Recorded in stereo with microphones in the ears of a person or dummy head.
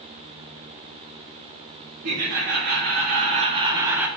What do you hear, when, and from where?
2.0 s laughter: 65° right (ahead or behind), 1.8 m; by 4.1 s 5° right (ahead or behind), 0.9 m